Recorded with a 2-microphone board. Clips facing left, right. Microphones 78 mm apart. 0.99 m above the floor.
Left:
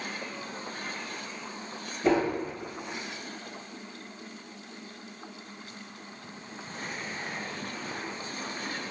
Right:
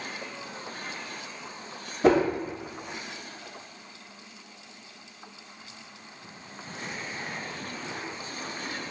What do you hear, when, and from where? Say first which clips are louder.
2.0 s a whoosh: right 4 dB; 75° right (ahead or behind), 0.7 m